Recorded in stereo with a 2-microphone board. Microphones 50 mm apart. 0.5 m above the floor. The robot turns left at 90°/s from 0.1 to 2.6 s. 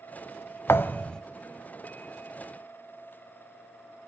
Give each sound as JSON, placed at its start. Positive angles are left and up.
{"t": 0.7, "sound": "a thud", "azimuth_deg": 60, "distance_m": 0.7}